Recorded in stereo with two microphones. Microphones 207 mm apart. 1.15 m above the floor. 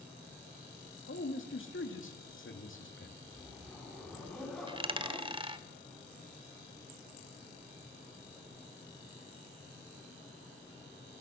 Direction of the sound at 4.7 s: 25° right (ahead or behind).